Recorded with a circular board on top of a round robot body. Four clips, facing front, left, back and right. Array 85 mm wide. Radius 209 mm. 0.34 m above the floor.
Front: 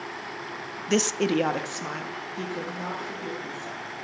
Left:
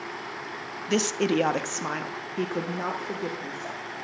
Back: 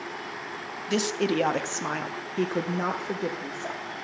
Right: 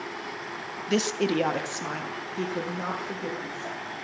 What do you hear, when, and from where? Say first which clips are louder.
0.9 s a woman speaking: left 1 dB, front 2 dB; 10° left, 0.9 m; by 3.8 s 160° left, 1.6 m